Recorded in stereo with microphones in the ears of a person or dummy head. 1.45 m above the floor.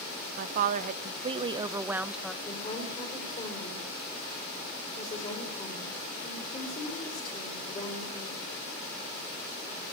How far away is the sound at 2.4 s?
About 4.5 m.